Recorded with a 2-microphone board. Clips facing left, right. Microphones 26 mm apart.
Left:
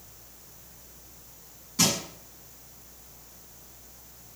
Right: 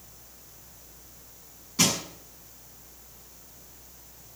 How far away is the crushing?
About 6 m.